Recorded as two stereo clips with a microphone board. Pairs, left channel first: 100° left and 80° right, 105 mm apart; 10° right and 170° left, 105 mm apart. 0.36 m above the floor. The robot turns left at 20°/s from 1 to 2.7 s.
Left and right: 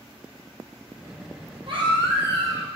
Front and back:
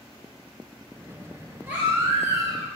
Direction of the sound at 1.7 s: 115° right.